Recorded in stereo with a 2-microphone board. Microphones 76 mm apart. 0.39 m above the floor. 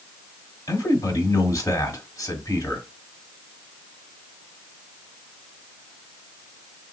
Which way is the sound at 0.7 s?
50° left (ahead or behind).